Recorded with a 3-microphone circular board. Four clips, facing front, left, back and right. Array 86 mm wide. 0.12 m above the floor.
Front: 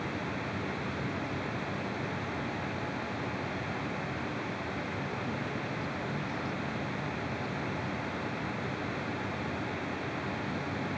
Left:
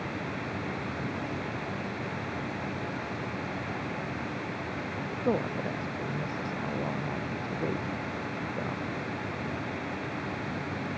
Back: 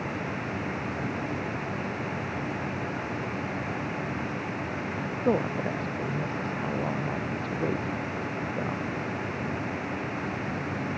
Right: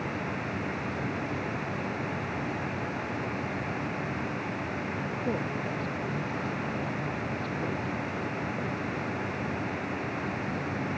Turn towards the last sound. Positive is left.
turn(degrees=155)